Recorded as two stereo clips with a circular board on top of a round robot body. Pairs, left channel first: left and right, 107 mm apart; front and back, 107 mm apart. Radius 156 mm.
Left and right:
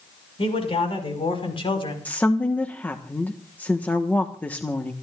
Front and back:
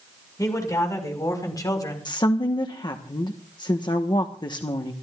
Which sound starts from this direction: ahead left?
A man speaking, at 0.4 s.